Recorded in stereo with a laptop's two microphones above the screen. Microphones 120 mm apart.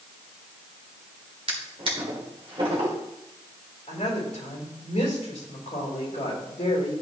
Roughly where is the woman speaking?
Left.